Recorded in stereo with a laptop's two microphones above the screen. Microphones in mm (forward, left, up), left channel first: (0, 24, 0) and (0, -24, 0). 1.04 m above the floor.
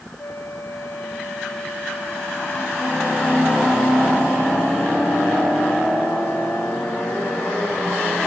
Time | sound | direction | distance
0.2 | a flute | 85° left | ?